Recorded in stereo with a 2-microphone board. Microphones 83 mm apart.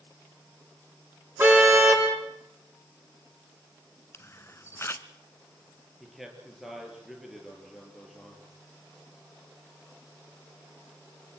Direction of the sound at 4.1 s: 30° left (ahead or behind).